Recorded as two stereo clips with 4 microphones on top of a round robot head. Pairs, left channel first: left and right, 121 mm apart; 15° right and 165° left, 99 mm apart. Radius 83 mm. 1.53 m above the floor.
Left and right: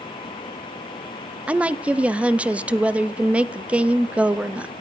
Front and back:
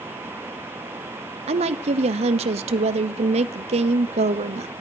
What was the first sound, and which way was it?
A woman speaking, 170° right.